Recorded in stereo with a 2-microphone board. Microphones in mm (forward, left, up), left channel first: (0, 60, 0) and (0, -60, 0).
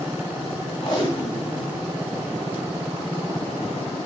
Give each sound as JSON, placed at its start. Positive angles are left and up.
{"t": 0.8, "sound": "tape being pulled", "side_deg": 45, "distance_m": 1.7}